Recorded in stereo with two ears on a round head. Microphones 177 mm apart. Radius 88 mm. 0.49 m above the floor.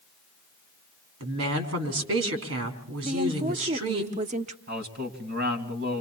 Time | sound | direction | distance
1.2 | a woman speaking | 80° right | 4 m
3.0 | a woman speaking | 35° right (ahead or behind) | 0.9 m
4.7 | a man speaking | 55° right (ahead or behind) | 3.5 m